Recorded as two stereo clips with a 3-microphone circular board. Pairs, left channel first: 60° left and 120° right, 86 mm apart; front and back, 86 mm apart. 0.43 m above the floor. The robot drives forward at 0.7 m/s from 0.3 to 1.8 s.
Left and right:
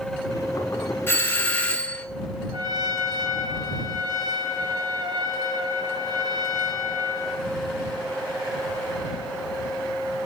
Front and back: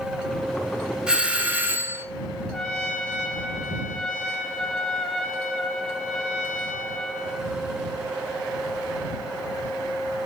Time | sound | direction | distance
1.1 | a doorbell | 110° left | 1.6 m
2.5 | a trumpet | 85° right | 2 m